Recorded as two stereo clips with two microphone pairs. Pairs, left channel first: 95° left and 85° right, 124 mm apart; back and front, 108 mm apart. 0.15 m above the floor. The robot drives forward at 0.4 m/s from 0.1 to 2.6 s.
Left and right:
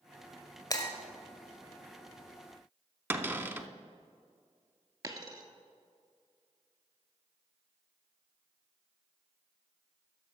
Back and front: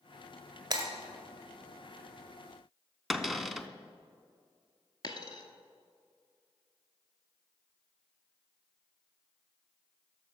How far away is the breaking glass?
About 1.6 m.